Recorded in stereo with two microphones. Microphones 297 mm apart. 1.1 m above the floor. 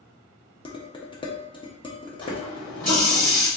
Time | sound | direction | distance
0.7 | dishes clattering | 15° left (ahead or behind) | 0.7 m
2.2 | a running tap | 55° left (ahead or behind) | 1.7 m